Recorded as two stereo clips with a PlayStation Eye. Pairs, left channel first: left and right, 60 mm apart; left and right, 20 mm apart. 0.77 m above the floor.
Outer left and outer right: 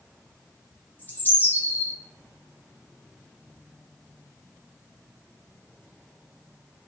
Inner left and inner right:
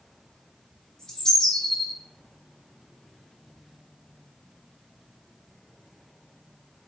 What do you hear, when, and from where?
1.0 s a bird: 30° left (ahead or behind), 0.6 m